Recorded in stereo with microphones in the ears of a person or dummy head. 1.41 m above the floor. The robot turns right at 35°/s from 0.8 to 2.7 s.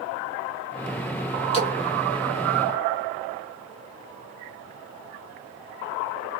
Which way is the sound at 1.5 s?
35° left (ahead or behind).